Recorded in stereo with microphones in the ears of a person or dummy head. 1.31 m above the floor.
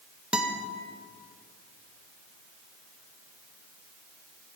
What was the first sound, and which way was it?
A guitar, 5° left (ahead or behind).